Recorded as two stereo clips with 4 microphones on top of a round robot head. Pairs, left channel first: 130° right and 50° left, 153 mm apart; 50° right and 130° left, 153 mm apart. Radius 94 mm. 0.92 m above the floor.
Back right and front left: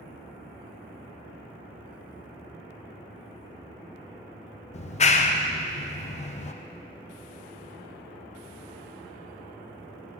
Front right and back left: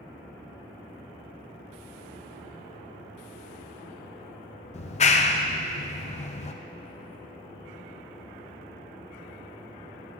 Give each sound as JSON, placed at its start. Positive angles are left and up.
{"t": 4.7, "sound": "a clap", "azimuth_deg": -90, "distance_m": 0.6}